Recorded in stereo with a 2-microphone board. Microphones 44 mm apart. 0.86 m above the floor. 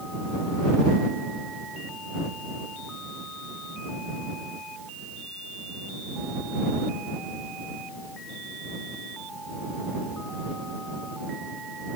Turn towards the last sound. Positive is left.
No sound to turn to.